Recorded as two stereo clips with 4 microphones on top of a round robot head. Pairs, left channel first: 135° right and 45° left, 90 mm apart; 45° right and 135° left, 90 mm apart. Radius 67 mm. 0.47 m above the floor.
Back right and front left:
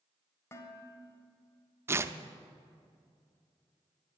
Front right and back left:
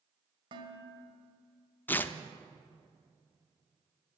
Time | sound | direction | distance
0.5 | dishes clattering | 165° left | 1.9 m
1.9 | tearing paper | 10° left | 0.6 m